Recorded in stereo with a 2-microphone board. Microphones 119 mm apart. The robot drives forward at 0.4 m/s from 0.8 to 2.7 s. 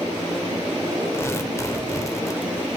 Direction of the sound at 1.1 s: 25° left (ahead or behind).